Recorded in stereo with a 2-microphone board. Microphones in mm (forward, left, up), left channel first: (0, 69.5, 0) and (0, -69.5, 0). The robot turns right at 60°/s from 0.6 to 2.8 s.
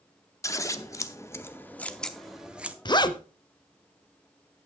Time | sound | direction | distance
0.4 | scissors | 25° left (ahead or behind) | 0.7 m
2.9 | a zipper | 35° left (ahead or behind) | 0.7 m